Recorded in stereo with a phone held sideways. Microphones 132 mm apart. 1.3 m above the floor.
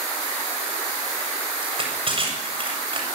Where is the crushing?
45° right (ahead or behind), 8 m.